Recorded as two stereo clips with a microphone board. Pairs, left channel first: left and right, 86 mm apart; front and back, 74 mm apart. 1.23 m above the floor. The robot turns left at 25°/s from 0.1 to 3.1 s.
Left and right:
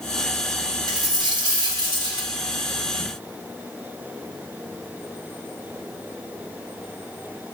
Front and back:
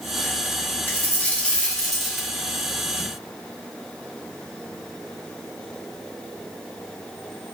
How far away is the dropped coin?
About 2 m.